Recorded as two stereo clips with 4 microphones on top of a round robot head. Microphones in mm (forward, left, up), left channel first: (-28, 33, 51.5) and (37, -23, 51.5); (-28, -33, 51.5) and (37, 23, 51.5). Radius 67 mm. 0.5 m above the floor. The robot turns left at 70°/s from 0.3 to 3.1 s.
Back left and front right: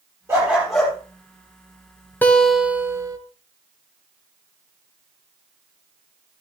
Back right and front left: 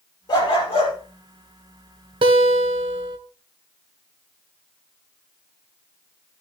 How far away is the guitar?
About 1.1 m.